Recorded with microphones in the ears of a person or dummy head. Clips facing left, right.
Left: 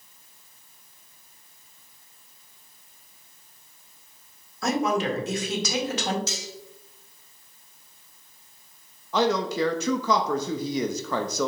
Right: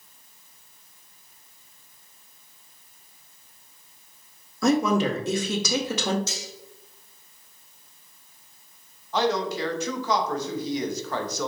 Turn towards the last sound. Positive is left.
turn(degrees=65)  # may be behind; listen again after turning